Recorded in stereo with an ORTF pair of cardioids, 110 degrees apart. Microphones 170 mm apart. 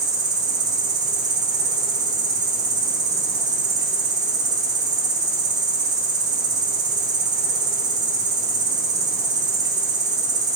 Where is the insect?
50° right, 1.1 m.